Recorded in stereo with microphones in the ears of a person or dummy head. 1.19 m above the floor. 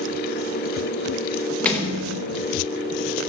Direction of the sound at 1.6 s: 10° left (ahead or behind).